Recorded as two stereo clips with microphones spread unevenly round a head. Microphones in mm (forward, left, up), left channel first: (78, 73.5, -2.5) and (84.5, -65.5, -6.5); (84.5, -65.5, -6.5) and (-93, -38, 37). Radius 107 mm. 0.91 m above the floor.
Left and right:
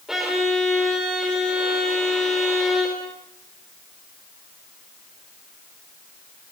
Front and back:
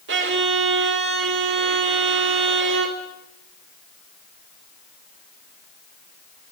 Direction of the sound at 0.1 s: 175° right.